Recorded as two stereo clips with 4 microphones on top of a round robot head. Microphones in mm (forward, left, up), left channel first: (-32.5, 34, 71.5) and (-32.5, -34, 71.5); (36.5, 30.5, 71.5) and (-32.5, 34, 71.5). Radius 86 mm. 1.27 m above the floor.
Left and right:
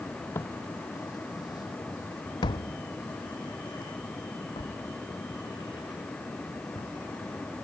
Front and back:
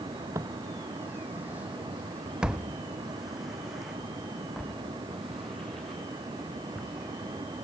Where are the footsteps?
140° left; by 6.9 s 80° left.